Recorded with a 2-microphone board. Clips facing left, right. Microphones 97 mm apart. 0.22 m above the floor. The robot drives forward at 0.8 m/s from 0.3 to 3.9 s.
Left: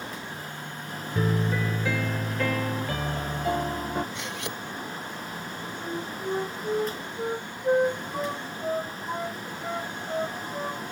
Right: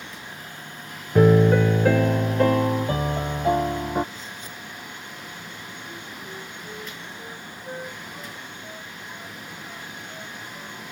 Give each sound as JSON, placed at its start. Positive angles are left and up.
{"t": 1.1, "sound": "a piano", "side_deg": -75}
{"t": 4.1, "sound": "cutlery clinking", "side_deg": 85}
{"t": 5.8, "sound": "a flute", "side_deg": 65}